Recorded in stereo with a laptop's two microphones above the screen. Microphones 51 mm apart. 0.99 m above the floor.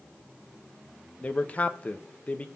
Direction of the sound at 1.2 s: 30° left (ahead or behind).